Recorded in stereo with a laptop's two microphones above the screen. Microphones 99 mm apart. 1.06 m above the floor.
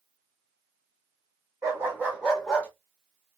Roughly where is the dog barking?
Right.